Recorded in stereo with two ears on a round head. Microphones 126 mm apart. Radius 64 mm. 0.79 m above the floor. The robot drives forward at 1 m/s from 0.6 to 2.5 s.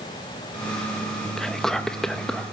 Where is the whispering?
5° left (ahead or behind), 0.9 m.